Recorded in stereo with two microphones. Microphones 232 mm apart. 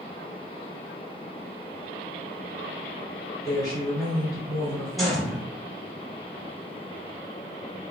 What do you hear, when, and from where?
3.4 s a woman speaking: 15° left (ahead or behind), 1.6 m
5.0 s a gunshot: centre (ahead or behind), 1.4 m